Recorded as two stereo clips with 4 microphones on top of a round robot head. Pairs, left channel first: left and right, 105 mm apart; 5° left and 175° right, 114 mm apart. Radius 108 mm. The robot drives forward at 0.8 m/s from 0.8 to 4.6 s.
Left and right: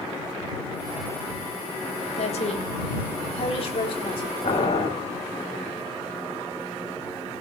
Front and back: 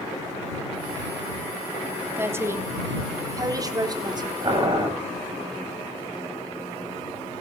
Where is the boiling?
135° left, 9 m.